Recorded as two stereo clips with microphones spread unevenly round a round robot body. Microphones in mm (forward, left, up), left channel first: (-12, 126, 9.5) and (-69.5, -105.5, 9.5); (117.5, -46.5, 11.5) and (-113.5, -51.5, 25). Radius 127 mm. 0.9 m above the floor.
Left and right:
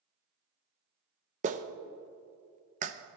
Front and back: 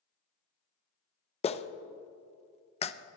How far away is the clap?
About 0.6 m.